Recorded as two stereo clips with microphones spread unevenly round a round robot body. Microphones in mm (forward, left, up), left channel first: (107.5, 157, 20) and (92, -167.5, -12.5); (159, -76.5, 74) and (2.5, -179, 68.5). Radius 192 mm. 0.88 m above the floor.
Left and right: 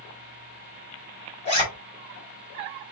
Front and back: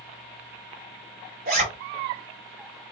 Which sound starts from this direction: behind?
A zipper, at 1.4 s.